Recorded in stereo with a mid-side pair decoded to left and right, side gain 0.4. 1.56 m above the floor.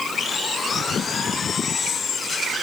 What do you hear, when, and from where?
Only background noise.